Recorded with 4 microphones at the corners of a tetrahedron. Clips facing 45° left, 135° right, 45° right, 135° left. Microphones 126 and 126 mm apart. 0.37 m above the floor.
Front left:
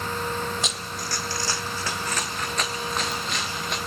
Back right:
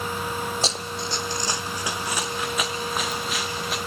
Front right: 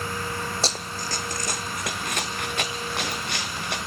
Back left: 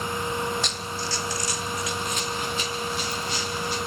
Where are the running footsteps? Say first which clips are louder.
Back right 4 dB, front right 1 dB; 90° right, 0.6 m; by 3.8 s 50° right, 2 m.